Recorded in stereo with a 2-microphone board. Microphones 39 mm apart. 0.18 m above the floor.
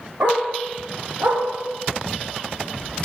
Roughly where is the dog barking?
Right.